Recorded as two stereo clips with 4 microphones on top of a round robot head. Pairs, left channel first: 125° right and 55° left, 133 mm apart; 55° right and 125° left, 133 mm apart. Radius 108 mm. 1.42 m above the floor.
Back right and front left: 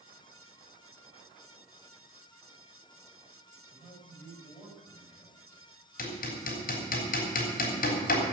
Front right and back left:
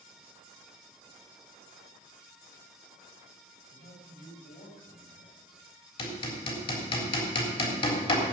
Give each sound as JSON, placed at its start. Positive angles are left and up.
{"t": 3.7, "sound": "a man speaking", "azimuth_deg": -50, "distance_m": 7.0}
{"t": 6.0, "sound": "hammering", "azimuth_deg": -105, "distance_m": 3.5}